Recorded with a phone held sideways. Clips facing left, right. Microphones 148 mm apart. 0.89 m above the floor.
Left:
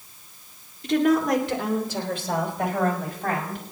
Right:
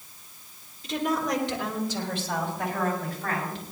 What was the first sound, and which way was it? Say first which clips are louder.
A woman speaking: left 7 dB; 65° left (ahead or behind).